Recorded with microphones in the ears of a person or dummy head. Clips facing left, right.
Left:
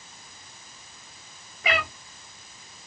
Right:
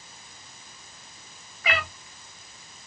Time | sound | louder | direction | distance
1.6 | a cat meowing | left 2 dB | 20° left (ahead or behind) | 1.1 m